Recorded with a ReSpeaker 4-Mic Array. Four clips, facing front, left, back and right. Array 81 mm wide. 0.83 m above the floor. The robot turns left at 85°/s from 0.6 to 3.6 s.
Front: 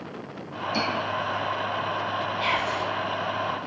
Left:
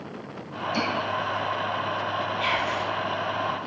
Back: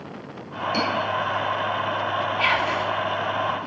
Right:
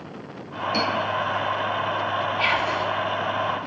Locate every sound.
0.7 s cutlery clinking: 135° right, 6 m; by 0.8 s 145° right, 6 m
2.4 s whispering: 155° right, 1.9 m; by 2.9 s 165° left, 1.9 m